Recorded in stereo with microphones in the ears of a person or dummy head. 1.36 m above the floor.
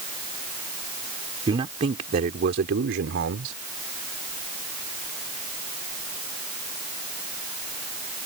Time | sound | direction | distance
1.5 | a man speaking | 30° right (ahead or behind) | ?